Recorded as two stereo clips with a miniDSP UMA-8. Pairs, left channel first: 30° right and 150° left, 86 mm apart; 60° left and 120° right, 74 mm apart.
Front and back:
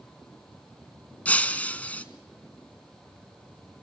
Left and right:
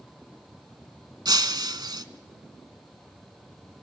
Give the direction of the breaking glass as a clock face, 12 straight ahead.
3 o'clock.